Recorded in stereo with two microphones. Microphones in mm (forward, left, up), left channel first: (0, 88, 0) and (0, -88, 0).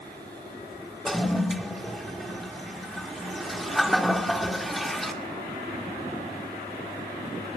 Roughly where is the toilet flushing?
Centre.